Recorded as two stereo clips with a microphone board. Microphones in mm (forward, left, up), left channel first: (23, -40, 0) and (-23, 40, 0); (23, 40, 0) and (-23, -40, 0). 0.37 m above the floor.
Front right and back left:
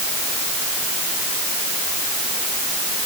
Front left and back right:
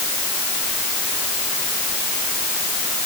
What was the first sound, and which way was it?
Only background noise.